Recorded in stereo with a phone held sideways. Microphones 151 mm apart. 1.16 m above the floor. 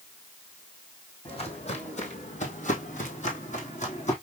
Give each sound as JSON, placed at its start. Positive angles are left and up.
{"t": 1.2, "sound": "footsteps", "side_deg": 40, "distance_m": 2.0}